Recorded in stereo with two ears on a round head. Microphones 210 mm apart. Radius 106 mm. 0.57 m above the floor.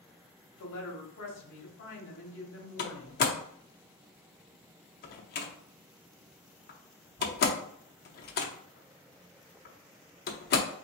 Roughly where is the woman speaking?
Left.